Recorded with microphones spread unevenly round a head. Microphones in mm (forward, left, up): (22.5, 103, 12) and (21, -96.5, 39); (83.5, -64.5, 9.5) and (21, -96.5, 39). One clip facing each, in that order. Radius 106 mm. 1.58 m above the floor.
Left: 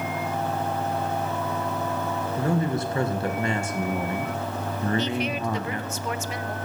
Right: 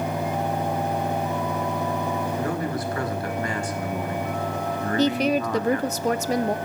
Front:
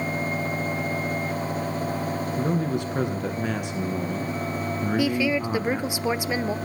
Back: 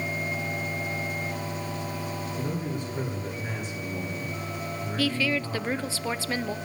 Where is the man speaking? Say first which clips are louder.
Left 2 dB, front 8 dB; 25° left, 1.9 m.